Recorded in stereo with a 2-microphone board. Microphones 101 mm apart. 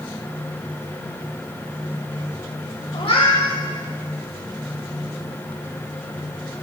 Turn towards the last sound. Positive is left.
turn(degrees=65)  # may be behind; listen again after turning